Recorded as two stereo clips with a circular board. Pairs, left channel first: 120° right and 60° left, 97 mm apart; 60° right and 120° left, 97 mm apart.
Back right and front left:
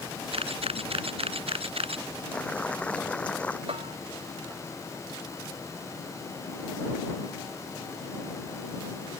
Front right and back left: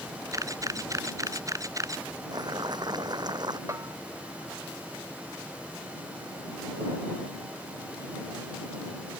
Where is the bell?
65° left.